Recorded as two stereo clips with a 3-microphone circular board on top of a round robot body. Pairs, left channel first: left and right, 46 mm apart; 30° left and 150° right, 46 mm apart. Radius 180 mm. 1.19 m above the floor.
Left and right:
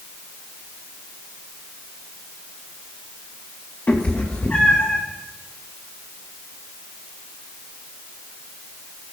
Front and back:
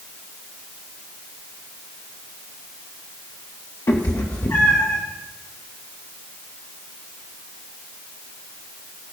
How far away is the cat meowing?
About 1.6 m.